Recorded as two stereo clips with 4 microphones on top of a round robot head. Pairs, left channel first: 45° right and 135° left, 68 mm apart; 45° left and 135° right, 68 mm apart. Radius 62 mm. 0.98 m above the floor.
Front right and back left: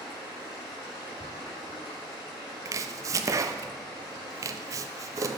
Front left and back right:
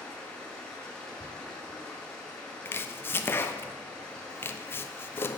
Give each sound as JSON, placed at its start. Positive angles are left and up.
{"t": 0.0, "sound": "running water", "azimuth_deg": -35, "distance_m": 6.5}
{"t": 2.6, "sound": "chopping", "azimuth_deg": 100, "distance_m": 0.9}